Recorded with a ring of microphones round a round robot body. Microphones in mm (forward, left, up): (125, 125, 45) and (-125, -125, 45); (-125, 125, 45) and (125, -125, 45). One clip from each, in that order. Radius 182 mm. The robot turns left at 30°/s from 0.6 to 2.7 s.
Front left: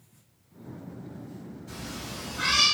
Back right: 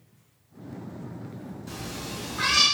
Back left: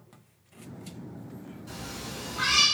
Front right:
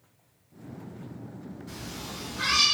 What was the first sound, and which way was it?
A cat meowing, 165° right.